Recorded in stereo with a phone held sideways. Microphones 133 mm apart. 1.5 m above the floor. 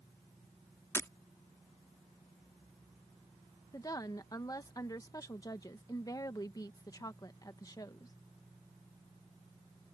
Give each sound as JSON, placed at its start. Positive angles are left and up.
{"t": 0.9, "sound": "breaking glass", "side_deg": 20}
{"t": 3.7, "sound": "a woman speaking", "side_deg": 25}